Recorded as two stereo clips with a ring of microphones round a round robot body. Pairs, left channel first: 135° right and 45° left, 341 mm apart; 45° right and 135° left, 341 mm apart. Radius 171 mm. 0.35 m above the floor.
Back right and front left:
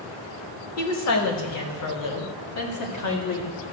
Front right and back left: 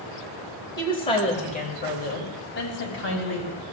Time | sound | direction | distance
0.8 | a woman speaking | 120° right | 1.5 m